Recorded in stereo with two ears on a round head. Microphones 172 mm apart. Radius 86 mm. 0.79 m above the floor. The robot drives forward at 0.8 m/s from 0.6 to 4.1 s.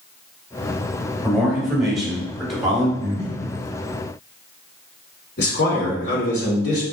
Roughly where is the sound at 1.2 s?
Centre.